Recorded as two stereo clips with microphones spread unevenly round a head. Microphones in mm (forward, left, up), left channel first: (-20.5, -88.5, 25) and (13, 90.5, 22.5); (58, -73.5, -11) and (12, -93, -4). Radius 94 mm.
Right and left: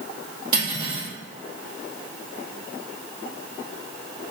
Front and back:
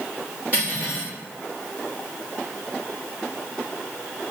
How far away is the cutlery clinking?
About 1.4 m.